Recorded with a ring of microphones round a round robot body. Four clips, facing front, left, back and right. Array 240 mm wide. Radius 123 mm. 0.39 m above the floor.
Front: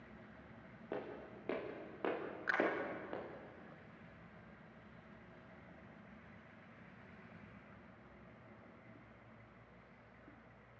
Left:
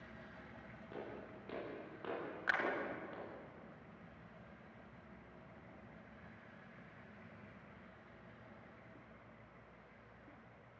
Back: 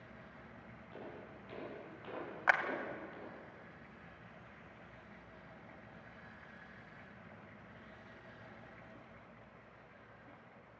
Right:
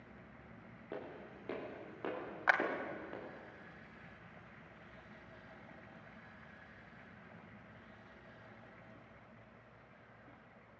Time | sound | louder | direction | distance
0.9 | footsteps | right 2 dB, front 5 dB | 30° right | 9.5 m
2.5 | a clap | right 6 dB, back 6 dB | 140° right | 2.5 m